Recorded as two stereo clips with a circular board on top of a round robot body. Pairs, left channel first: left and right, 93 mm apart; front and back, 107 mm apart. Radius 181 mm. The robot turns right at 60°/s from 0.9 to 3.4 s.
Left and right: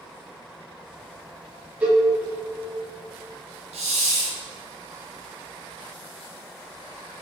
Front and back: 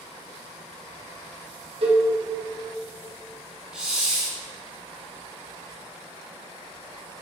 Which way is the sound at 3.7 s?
95° right.